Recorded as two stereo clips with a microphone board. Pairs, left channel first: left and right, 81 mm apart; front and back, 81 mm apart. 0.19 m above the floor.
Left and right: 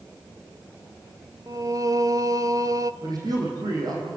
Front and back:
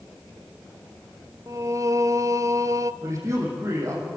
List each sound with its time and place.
1.5 s singing: 130° right, 0.5 m
3.0 s a man speaking: 130° right, 6.5 m